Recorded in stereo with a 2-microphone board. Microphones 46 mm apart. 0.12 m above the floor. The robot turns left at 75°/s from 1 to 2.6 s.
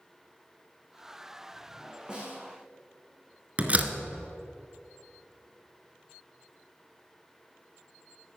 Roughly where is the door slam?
Right.